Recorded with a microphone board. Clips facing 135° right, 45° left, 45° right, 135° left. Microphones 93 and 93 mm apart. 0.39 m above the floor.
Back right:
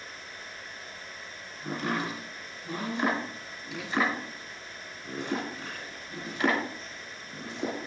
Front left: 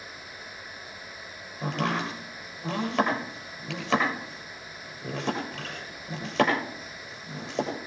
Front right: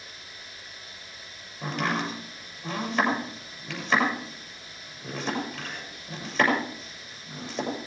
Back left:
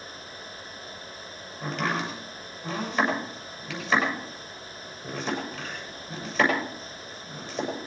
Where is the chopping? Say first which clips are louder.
Front left 3 dB, even; 40° left, 7.5 m.